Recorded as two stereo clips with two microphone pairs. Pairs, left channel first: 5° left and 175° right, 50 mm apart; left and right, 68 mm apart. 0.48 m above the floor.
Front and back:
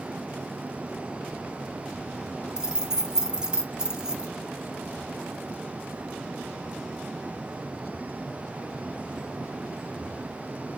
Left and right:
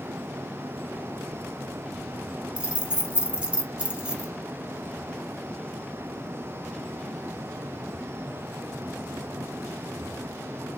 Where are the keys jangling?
140° right, 0.6 m.